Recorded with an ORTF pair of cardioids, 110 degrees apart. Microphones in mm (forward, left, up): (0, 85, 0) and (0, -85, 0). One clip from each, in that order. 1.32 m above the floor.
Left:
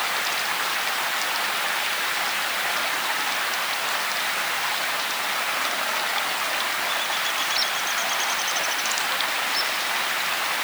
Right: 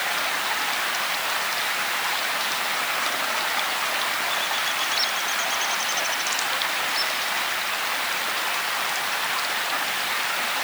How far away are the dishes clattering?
I don't hear dishes clattering.